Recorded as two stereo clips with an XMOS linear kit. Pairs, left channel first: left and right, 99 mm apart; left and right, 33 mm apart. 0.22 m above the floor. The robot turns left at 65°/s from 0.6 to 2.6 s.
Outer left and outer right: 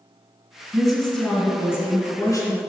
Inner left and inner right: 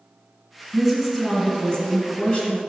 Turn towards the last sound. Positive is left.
turn(degrees=70)